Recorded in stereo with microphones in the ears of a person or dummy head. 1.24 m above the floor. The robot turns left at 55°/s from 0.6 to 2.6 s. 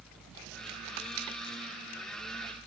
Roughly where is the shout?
No shout in this recording.